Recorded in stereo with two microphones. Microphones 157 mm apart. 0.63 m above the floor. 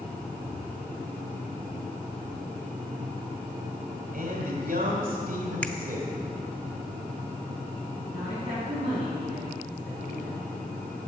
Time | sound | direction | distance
4.1 | a man speaking | 65° right (ahead or behind) | 2.0 m
5.6 | a finger snap | 5° left (ahead or behind) | 0.8 m
8.1 | a woman speaking | 35° right (ahead or behind) | 6 m